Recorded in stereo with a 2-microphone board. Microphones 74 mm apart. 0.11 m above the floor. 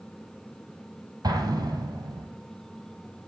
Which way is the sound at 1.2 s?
60° right (ahead or behind).